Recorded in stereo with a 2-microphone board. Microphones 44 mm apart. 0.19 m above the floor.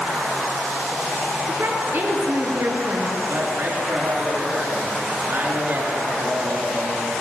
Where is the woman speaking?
60° right (ahead or behind), 3 m.